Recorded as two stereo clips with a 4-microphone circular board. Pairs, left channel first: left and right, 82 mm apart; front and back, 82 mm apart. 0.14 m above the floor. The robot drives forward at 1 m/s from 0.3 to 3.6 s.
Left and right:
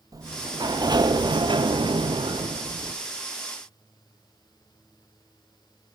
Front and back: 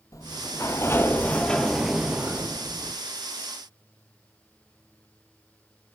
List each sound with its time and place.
0.1 s a sliding door: 45° right, 2.5 m; by 3.0 s 125° right, 2 m